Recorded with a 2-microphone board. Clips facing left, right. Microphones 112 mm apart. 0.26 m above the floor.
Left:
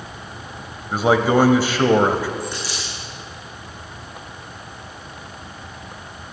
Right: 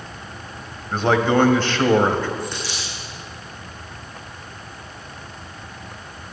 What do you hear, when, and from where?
0.9 s a man speaking: 10° left (ahead or behind), 1.0 m
2.4 s a dropped coin: 10° left (ahead or behind), 7 m